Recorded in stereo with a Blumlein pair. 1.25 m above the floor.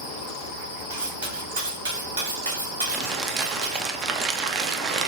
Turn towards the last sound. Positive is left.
turn(degrees=-25)